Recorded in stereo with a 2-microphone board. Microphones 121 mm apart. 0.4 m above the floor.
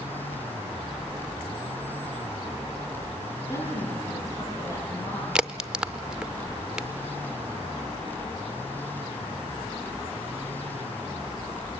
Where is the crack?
5° right (ahead or behind), 0.5 m.